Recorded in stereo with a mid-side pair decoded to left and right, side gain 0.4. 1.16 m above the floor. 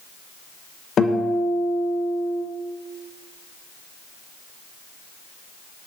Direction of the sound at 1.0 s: 55° left.